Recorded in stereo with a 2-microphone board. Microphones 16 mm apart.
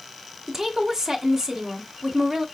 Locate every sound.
0.5 s a woman speaking: 35° right (ahead or behind), 1.2 m